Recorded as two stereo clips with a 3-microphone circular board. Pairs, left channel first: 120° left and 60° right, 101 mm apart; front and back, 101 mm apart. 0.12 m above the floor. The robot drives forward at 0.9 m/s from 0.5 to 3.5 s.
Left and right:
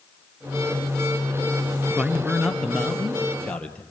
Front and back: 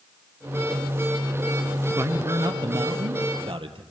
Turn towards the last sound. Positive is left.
turn(degrees=-165)